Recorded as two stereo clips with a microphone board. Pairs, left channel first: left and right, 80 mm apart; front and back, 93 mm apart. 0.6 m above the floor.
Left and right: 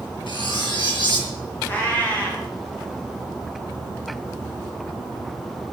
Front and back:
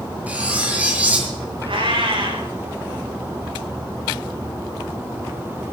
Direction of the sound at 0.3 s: 105° left.